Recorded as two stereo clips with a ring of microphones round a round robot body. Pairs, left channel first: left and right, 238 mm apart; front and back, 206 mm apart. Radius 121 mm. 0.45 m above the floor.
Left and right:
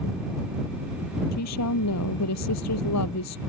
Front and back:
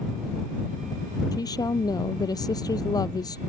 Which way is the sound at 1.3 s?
70° left.